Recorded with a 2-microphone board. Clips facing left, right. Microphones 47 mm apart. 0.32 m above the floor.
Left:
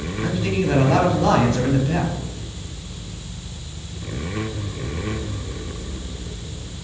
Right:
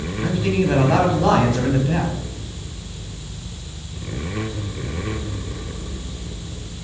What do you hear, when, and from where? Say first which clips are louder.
0.2 s a man speaking: right 2 dB; 5° right (ahead or behind), 1.9 m